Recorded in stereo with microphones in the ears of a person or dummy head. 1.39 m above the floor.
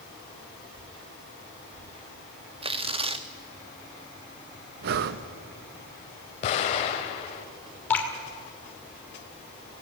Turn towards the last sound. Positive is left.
turn(degrees=15)  # may be behind; listen again after turning